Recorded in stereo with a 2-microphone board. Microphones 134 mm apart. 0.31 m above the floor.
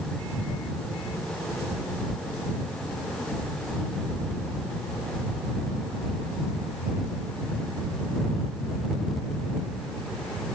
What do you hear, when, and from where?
Only background noise.